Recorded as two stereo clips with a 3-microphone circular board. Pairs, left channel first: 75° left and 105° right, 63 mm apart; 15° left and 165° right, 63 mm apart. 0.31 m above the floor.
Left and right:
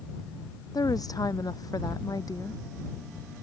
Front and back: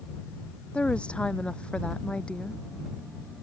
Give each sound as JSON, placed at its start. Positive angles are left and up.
{"t": 0.7, "sound": "a woman speaking", "azimuth_deg": 85}